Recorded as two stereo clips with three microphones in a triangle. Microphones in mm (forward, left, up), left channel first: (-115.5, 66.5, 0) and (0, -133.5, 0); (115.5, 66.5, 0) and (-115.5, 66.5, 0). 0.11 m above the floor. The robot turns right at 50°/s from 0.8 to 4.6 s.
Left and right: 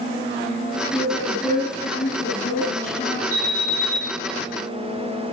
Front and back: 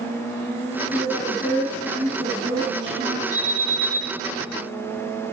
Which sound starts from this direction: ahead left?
A woman speaking, at 0.9 s.